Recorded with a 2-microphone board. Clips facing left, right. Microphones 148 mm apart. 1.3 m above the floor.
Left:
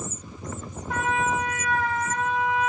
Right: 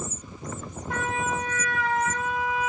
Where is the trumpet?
Centre (ahead or behind), 1.5 m.